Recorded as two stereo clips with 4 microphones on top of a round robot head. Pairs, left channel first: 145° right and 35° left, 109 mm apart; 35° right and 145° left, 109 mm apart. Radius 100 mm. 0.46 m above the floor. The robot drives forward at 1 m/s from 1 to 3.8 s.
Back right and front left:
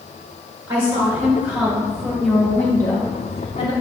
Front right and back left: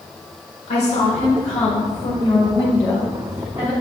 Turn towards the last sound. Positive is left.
turn(degrees=-145)